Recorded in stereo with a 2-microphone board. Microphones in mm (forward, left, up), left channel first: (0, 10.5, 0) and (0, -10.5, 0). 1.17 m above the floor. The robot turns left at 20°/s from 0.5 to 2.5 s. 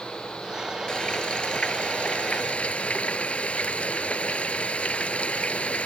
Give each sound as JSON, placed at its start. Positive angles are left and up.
{"t": 0.9, "sound": "frying", "azimuth_deg": 130}